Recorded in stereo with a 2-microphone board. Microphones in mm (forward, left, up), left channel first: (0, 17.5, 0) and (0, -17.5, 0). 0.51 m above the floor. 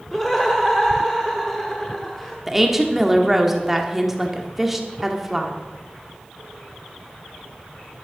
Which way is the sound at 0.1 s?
5° left (ahead or behind).